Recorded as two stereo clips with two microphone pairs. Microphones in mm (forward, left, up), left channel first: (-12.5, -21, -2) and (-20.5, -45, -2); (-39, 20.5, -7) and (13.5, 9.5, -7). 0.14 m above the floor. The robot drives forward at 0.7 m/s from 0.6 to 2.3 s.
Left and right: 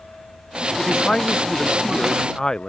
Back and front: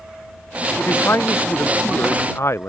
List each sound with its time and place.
0.8 s a man speaking: 130° left; by 2.7 s 135° left